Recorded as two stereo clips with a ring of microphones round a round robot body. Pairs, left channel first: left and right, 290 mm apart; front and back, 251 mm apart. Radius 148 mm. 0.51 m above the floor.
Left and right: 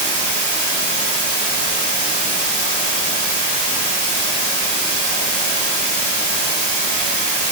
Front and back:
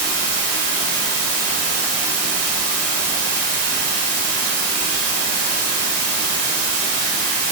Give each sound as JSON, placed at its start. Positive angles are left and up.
{"t": 0.0, "sound": "running water", "azimuth_deg": -145, "distance_m": 1.9}